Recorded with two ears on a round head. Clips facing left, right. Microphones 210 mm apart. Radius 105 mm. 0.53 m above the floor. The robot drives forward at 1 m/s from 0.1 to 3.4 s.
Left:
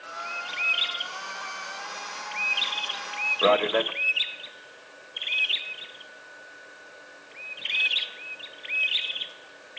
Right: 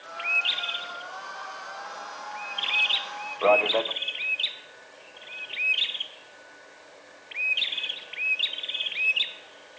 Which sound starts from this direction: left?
A man speaking, at 3.4 s.